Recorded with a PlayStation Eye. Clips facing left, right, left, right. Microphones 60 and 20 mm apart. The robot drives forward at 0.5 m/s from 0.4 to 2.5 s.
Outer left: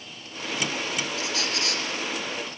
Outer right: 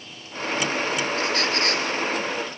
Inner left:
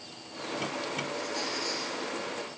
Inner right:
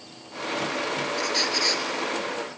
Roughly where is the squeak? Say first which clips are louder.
Outer right 6 dB, inner right 9 dB; right.